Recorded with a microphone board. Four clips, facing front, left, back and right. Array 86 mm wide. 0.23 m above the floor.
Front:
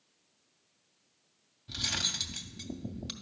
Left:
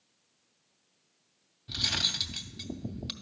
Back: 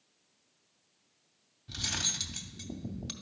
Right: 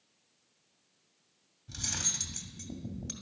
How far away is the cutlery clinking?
About 0.6 m.